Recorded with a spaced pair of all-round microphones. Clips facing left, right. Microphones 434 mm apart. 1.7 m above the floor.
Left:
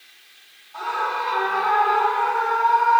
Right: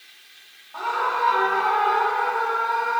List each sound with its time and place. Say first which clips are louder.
0.7 s a scream: right 1 dB; 70° right (ahead or behind), 4.5 m; by 3.0 s 50° right (ahead or behind), 5 m